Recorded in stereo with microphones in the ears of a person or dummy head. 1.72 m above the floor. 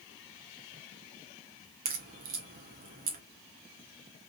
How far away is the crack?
About 0.9 m.